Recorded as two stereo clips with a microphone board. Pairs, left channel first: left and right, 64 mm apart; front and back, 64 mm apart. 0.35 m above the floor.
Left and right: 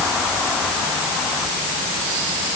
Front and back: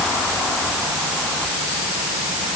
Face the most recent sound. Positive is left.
No sound to turn to.